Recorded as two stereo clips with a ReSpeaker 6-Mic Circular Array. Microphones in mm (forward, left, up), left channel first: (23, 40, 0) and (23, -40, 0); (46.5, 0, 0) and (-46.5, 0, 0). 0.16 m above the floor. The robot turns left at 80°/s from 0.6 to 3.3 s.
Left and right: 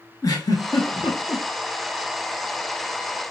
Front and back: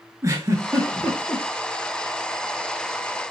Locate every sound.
0.2 s a giggle: 125° left, 0.7 m; by 1.4 s 55° left, 0.7 m